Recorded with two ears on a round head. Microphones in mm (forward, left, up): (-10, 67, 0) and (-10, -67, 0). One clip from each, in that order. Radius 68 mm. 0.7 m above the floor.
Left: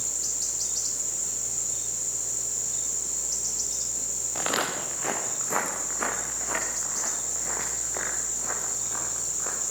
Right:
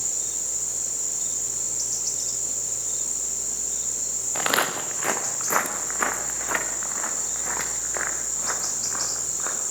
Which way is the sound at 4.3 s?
35° right (ahead or behind).